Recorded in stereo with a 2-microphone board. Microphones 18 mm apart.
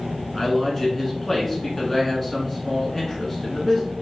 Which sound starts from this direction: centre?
A man speaking, at 0.3 s.